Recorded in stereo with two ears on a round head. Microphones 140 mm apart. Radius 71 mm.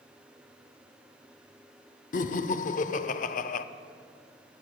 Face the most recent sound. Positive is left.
turn(degrees=55)  # may be behind; listen again after turning